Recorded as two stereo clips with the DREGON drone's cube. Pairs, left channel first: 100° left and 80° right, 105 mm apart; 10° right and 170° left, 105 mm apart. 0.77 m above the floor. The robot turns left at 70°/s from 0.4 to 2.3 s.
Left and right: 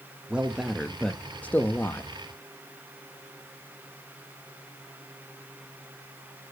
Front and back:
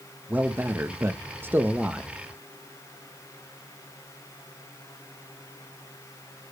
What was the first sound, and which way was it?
A man speaking, 140° right.